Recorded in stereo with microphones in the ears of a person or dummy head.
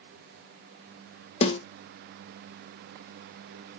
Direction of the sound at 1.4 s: 35° left (ahead or behind).